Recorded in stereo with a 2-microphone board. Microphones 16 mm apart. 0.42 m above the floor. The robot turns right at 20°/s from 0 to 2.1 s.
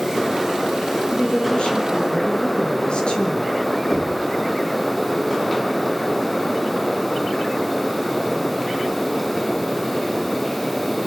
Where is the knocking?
15° left (ahead or behind), 7.5 m.